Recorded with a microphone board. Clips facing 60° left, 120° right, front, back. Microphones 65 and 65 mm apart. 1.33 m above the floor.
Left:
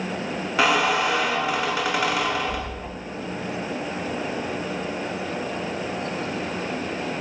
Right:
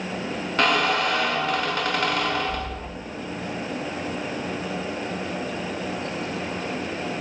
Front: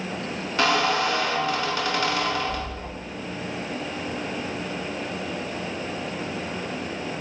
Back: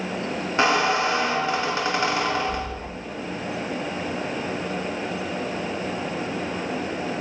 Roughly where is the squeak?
Behind left.